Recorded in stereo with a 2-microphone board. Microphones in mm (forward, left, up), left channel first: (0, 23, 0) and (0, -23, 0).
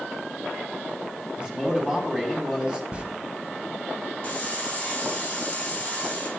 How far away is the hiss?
About 3 m.